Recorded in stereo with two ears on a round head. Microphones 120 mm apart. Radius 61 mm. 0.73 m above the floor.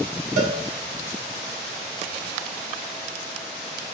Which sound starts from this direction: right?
A cowbell, at 0.4 s.